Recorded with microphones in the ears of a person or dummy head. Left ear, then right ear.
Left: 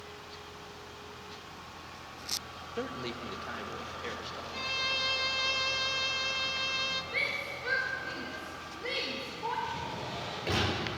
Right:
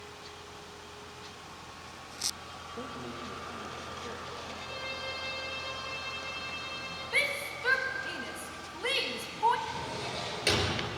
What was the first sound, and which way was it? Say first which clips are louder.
A man speaking: left 4 dB; 55° left (ahead or behind).